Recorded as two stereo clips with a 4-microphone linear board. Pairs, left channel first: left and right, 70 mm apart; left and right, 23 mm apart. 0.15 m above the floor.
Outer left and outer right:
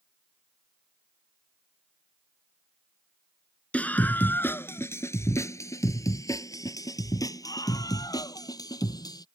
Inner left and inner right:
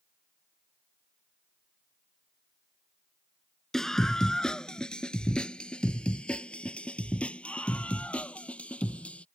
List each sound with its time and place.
3.7 s a scream: 20° left (ahead or behind); by 9.2 s 70° left (ahead or behind)